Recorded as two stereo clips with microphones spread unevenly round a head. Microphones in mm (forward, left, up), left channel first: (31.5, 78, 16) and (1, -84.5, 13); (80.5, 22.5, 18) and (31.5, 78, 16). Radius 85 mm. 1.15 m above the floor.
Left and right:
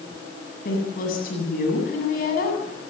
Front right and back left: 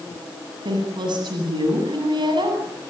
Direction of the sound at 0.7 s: 120° left.